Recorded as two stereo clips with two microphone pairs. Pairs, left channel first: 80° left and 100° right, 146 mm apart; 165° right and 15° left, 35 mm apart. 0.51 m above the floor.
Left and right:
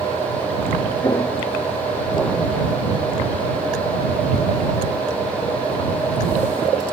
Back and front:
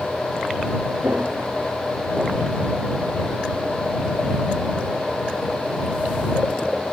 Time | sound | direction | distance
1.0 | footsteps | 15° left | ?